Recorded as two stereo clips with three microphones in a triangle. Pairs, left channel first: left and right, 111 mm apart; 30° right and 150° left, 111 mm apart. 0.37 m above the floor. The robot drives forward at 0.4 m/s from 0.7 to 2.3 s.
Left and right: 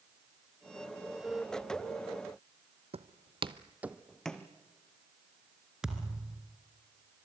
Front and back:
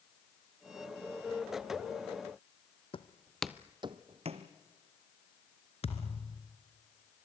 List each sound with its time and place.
2.9 s footsteps: 65° right, 1.0 m; by 4.5 s 170° left, 1.8 m
5.8 s a thud: 5° right, 2 m